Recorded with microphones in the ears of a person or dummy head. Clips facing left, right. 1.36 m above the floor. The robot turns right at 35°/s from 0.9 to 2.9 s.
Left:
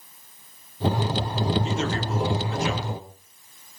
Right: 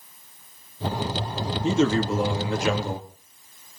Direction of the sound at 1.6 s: 90° right.